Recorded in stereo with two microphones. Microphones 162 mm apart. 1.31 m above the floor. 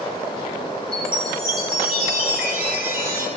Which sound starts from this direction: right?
A chime, at 0.9 s.